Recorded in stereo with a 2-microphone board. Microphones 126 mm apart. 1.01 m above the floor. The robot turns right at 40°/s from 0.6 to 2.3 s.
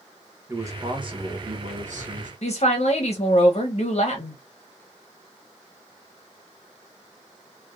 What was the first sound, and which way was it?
A man speaking, 160° right.